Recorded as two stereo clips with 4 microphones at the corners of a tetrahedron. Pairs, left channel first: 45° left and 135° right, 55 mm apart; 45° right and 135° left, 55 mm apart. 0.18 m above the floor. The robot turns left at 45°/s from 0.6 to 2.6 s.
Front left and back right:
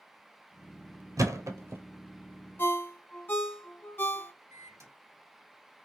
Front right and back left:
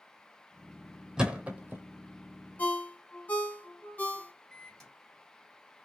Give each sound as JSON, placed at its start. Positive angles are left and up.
{"t": 1.2, "sound": "a thud", "azimuth_deg": -145, "distance_m": 0.7}
{"t": 2.6, "sound": "a ringtone", "azimuth_deg": 5, "distance_m": 0.7}
{"t": 4.5, "sound": "a microwave", "azimuth_deg": -125, "distance_m": 1.6}